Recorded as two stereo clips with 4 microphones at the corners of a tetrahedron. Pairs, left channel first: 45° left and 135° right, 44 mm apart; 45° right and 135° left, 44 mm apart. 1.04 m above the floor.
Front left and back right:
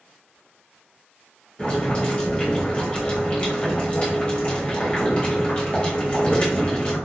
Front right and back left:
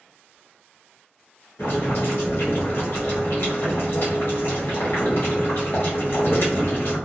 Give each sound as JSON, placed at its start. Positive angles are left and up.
{"t": 1.6, "sound": "boiling", "azimuth_deg": -20, "distance_m": 1.6}